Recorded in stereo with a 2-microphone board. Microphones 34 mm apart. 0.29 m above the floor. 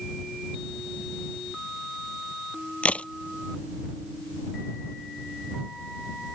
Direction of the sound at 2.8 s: 40° left (ahead or behind).